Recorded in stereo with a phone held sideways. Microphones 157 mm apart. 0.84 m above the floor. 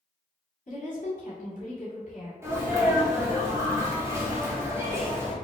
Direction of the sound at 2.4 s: 15° right (ahead or behind).